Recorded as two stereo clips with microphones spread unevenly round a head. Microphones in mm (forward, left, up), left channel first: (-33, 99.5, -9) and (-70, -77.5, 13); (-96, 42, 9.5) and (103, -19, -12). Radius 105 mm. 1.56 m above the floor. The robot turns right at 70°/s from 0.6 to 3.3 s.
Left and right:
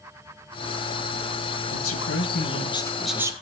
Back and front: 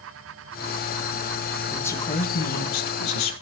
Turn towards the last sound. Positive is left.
turn(degrees=-175)